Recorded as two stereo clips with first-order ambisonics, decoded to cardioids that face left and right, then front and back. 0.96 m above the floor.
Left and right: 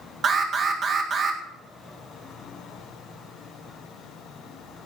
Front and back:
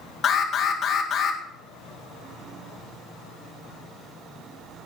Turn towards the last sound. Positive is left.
turn(degrees=-50)